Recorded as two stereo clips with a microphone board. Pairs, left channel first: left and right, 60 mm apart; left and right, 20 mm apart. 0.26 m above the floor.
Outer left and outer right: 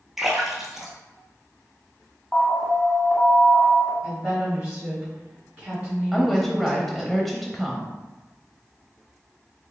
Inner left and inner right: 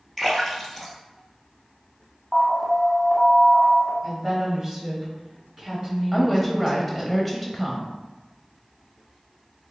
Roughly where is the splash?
Centre.